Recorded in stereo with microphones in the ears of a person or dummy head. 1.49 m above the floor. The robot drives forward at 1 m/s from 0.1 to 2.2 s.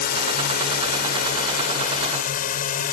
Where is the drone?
55° left (ahead or behind); by 2.9 s 45° left (ahead or behind).